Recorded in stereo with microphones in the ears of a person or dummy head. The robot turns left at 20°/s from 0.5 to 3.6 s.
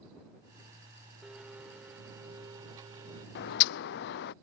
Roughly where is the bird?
Left.